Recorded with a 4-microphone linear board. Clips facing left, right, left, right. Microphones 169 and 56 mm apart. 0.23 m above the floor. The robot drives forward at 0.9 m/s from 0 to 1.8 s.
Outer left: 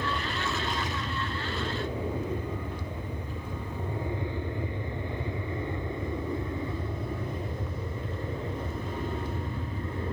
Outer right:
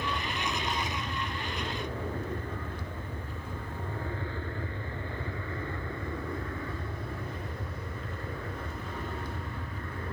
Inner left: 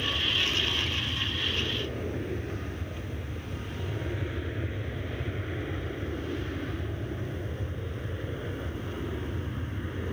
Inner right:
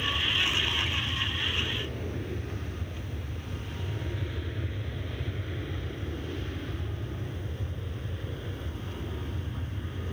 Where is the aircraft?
15° left (ahead or behind); by 10.1 s 20° left (ahead or behind).